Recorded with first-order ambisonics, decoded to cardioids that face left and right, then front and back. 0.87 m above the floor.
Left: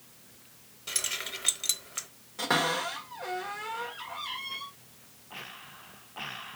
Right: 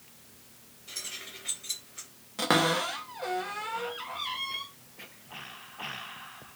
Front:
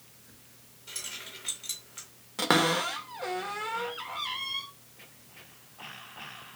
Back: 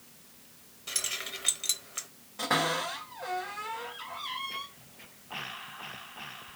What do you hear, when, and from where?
0.9 s keys jangling: 120° left, 0.5 m
2.4 s a cupboard door: 25° right, 0.8 m